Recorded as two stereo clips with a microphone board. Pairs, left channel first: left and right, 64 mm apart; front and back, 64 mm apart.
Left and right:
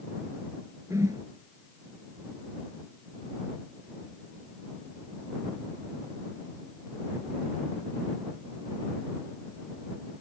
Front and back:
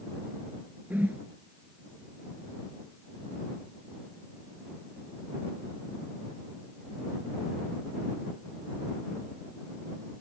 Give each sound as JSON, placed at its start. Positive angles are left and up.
{"t": 0.9, "sound": "a whoosh", "azimuth_deg": -120}